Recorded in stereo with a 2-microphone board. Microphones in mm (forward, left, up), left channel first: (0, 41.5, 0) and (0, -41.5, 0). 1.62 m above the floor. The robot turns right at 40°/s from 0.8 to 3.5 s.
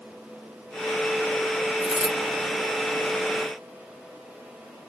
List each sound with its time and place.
1.8 s a dropped coin: 5° left (ahead or behind), 1.6 m; by 2.1 s 5° right (ahead or behind), 1.6 m